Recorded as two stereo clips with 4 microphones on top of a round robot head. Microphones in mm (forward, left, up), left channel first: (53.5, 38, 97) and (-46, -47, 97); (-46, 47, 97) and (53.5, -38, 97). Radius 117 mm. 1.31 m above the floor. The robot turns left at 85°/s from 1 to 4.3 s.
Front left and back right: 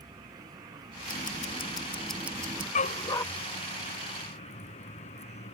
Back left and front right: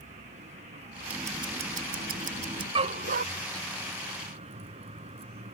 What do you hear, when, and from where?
0.0 s a vehicle: 80° right; by 5.5 s straight ahead
1.1 s ticking: 40° left; by 2.6 s 95° right
2.8 s a dog barking: 10° left; by 3.2 s 30° right